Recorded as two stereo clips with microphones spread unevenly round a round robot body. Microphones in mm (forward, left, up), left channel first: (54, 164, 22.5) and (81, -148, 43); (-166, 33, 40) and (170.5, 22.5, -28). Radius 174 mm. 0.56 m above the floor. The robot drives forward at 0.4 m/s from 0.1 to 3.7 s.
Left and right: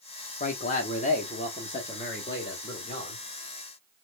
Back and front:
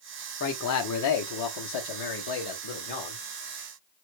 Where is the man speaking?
135° left, 0.9 m; by 3.2 s 165° left, 1.7 m.